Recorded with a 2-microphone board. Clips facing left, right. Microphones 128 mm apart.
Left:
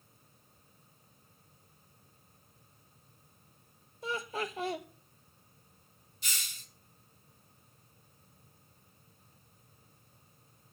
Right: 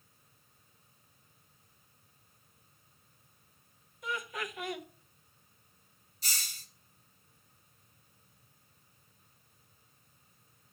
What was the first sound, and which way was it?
Laughter, 30° left (ahead or behind).